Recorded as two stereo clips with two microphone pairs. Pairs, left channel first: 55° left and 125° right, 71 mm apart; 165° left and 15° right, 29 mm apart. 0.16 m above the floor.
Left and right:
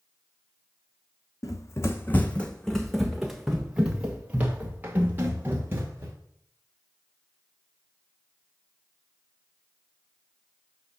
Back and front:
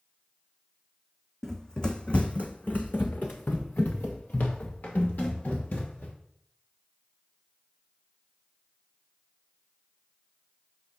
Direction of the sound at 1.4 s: 95° left.